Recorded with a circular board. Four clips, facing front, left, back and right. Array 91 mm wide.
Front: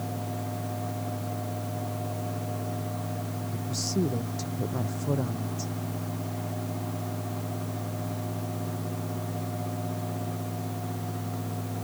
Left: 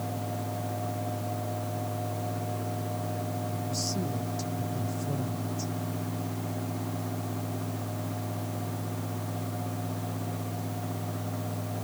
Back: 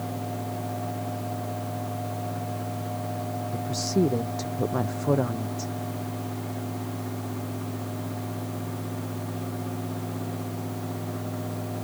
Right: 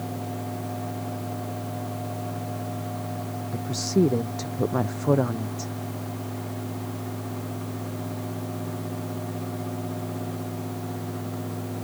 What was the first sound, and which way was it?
A woman speaking, 120° right.